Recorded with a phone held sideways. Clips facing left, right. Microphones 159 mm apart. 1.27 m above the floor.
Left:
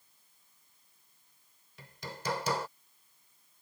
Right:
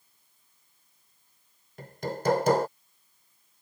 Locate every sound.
1.8 s hammering: 55° right (ahead or behind)